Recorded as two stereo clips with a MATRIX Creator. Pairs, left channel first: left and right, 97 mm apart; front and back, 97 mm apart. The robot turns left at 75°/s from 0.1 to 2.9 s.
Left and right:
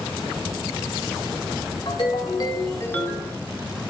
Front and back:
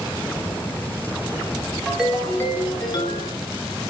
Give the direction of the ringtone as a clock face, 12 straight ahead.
8 o'clock.